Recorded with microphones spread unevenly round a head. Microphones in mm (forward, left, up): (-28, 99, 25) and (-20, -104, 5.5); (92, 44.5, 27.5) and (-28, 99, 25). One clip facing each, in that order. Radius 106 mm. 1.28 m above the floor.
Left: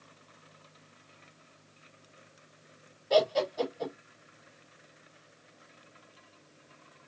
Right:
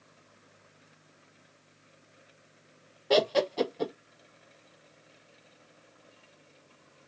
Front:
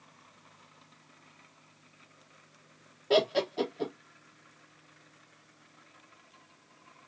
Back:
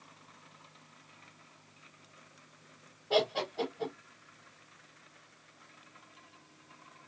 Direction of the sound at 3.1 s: 65° right.